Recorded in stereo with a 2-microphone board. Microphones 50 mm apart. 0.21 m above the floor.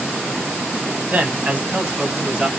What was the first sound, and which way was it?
A man speaking, 30° right (ahead or behind).